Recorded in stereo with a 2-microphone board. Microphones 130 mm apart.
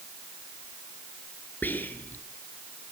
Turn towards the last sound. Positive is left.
turn(degrees=15)  # may be behind; listen again after turning